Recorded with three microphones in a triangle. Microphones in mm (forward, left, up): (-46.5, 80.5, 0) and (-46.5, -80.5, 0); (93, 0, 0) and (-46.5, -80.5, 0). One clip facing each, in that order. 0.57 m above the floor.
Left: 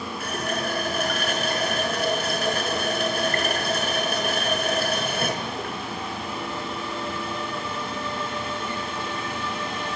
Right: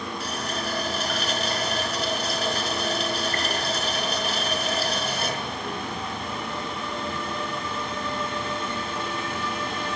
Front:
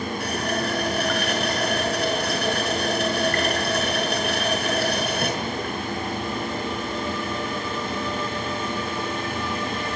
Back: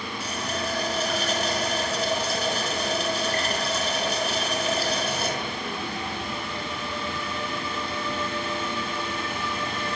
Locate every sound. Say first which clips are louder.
0.2 s a running tap: left 6 dB, front 3 dB; 55° left, 5.5 m